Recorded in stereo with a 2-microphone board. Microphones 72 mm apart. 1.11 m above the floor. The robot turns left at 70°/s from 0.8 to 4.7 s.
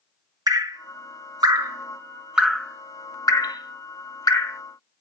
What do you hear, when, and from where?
0.5 s dripping: 60° right (ahead or behind), 0.9 m; by 4.6 s 30° left (ahead or behind), 0.9 m